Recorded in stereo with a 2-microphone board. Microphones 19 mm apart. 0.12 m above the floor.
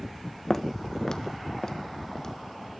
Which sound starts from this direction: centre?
Footsteps, at 0.5 s.